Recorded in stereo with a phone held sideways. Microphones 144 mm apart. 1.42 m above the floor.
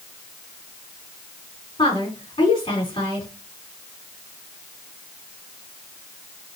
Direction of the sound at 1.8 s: 40° left (ahead or behind).